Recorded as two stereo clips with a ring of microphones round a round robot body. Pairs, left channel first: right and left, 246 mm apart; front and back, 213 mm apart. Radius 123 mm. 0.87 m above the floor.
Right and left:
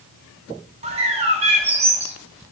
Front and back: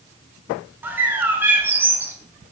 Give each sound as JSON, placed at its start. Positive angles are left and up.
{"t": 0.8, "sound": "a bird", "azimuth_deg": 110, "distance_m": 0.5}